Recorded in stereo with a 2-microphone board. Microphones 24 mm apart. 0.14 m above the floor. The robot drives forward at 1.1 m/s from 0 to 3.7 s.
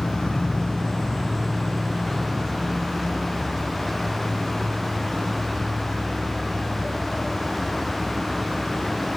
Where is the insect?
80° left, 1.1 m; by 9.2 s 15° left (ahead or behind), 4 m.